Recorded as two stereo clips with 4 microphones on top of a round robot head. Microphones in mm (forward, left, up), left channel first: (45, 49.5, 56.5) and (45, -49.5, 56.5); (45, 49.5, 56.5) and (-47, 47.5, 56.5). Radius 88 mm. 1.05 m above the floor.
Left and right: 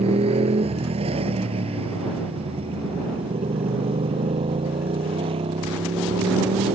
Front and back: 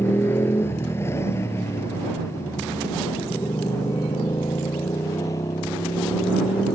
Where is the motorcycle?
70° right; by 6.8 s 60° right.